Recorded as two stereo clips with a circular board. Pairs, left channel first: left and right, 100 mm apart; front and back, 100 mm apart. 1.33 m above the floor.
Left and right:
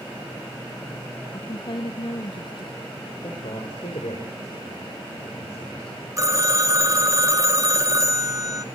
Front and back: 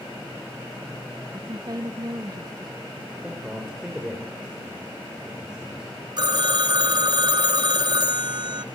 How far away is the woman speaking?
About 0.7 m.